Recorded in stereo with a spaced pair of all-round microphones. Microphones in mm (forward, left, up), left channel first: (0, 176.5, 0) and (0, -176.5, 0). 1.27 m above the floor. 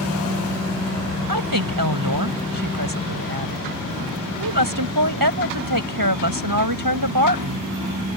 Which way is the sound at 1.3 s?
75° right (ahead or behind).